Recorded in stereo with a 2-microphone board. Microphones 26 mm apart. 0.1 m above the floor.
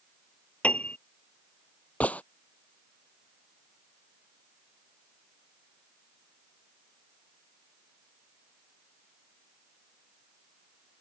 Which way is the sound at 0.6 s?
55° left (ahead or behind).